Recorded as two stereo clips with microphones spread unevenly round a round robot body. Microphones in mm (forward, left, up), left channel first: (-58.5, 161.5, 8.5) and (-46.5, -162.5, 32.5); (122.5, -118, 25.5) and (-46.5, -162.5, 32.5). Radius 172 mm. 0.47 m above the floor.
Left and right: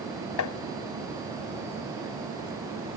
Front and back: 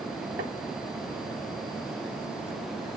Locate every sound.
0.4 s tapping: 130° left